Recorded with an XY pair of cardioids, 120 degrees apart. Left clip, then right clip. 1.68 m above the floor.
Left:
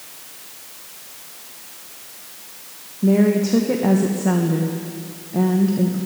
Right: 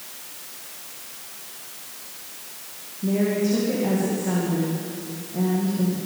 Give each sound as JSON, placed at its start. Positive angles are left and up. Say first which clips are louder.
{"t": 3.0, "sound": "a woman speaking", "louder": "left 5 dB", "azimuth_deg": 55, "distance_m": 1.6}